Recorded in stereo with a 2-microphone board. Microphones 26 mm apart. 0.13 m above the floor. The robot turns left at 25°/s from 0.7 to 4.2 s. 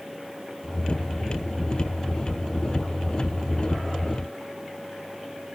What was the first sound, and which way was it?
Only background noise.